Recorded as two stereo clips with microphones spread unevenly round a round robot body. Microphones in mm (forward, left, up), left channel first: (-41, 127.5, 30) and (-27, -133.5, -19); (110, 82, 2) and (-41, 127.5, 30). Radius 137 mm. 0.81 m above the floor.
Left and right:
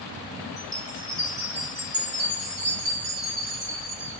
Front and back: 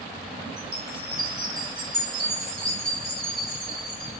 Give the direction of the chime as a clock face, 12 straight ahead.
5 o'clock.